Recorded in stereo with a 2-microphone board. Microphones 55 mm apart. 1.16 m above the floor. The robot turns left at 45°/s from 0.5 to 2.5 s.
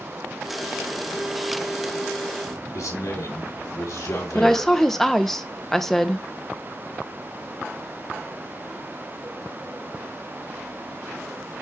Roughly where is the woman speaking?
Centre.